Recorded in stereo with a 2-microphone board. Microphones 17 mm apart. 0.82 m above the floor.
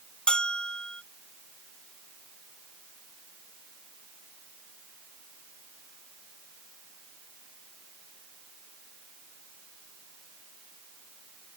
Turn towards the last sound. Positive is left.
turn(degrees=60)  # may be behind; listen again after turning